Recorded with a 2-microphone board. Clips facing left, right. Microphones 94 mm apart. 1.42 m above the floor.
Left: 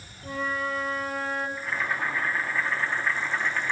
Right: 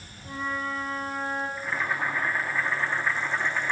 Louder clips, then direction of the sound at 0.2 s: Left 2 dB; 85° left.